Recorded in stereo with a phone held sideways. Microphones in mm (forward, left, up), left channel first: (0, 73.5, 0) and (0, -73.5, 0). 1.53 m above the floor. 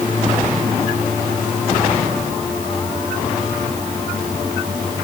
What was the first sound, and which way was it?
Only background noise.